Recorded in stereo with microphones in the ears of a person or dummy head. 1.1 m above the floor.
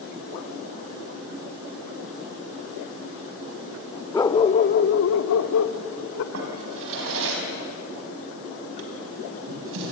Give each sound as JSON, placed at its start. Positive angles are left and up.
{"t": 4.1, "sound": "a dog barking", "side_deg": 10, "distance_m": 0.9}
{"t": 6.3, "sound": "a drawer", "side_deg": -75, "distance_m": 4.5}